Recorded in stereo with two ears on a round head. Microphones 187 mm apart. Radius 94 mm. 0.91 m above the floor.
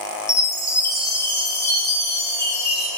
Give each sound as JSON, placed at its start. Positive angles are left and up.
{"t": 0.3, "sound": "a chime", "side_deg": 15, "distance_m": 1.6}